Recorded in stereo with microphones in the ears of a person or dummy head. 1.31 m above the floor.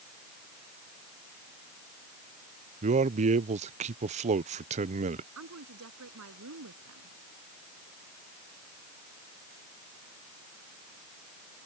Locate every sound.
2.8 s a man speaking: 35° right (ahead or behind)
5.3 s a woman speaking: 80° right